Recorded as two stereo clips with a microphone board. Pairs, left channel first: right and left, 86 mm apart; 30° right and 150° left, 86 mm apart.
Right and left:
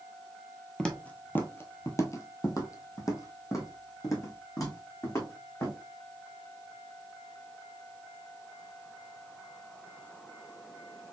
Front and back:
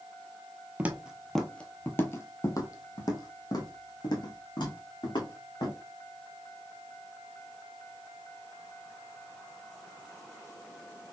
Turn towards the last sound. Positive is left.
turn(degrees=-45)